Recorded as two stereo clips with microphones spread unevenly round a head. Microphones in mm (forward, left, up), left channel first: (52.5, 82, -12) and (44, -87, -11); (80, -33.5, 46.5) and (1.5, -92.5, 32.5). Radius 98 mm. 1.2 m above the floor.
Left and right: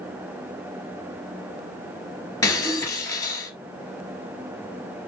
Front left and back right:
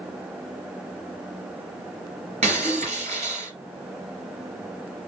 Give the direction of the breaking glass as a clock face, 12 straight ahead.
7 o'clock.